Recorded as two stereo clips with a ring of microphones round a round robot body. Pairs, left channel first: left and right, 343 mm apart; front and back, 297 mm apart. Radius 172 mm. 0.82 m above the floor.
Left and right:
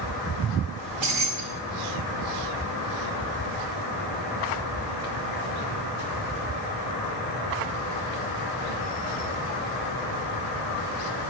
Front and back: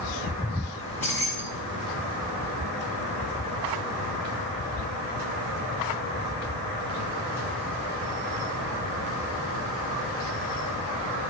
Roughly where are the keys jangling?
Right.